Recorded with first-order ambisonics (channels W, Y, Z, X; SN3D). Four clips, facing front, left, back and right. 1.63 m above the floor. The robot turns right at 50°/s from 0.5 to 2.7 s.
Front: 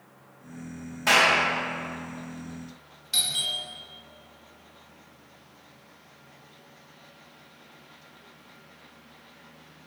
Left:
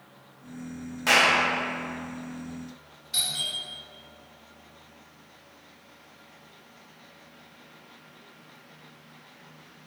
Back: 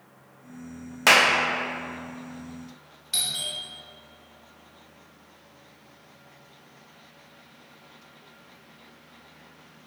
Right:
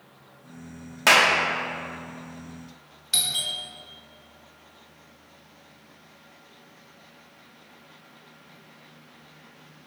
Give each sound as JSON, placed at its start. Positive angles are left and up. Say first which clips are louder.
{"t": 1.1, "sound": "a clap", "louder": "right 3 dB, back 2 dB", "azimuth_deg": -145, "distance_m": 0.9}
{"t": 3.1, "sound": "a doorbell", "louder": "right 3 dB, front 2 dB", "azimuth_deg": -95, "distance_m": 1.1}